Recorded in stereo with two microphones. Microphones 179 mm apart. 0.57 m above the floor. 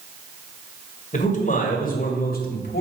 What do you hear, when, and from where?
1.1 s a man speaking: 40° left (ahead or behind), 2 m; by 2.8 s 60° left (ahead or behind), 2.5 m